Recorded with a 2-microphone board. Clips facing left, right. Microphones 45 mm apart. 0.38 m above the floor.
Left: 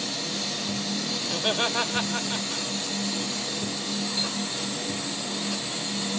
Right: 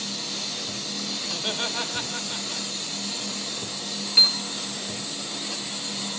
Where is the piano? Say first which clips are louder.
Right 6 dB; 85° right, 1.0 m.